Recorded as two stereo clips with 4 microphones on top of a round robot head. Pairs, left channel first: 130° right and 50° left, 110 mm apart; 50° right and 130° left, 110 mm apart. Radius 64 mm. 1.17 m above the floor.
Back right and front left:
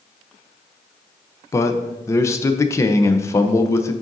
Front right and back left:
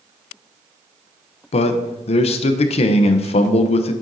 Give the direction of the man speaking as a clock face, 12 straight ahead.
2 o'clock.